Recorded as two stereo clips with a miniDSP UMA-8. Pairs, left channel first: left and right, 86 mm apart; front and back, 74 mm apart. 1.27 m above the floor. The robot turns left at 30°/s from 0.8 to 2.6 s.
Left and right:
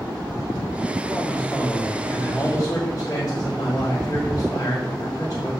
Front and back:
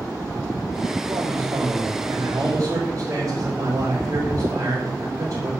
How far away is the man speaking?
About 3.5 m.